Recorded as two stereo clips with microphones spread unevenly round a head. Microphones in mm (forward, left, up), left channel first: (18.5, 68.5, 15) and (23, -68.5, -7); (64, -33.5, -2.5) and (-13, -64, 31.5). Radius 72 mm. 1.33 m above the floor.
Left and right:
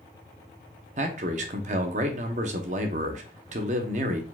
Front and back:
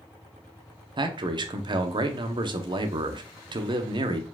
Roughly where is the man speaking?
Behind right.